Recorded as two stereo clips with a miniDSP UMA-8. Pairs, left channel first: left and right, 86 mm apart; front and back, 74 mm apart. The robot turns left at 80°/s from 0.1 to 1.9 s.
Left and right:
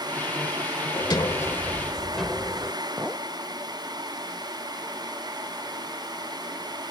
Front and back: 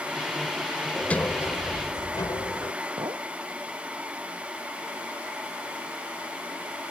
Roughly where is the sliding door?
Left.